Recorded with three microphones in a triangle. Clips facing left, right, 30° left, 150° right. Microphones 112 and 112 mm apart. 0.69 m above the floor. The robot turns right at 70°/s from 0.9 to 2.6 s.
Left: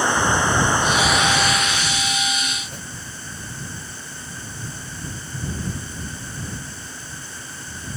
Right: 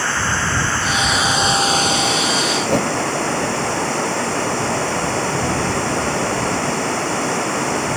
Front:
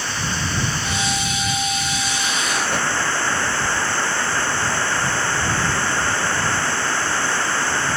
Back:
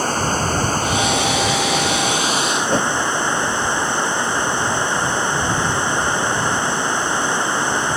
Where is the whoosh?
95° right.